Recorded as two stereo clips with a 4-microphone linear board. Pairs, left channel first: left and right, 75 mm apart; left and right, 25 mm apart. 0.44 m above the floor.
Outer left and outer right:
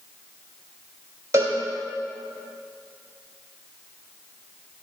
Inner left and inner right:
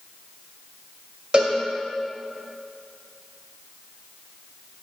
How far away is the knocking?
I don't hear knocking.